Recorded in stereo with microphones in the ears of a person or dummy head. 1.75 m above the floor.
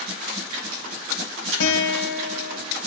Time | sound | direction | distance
1.6 | a guitar | 80° left | 1.8 m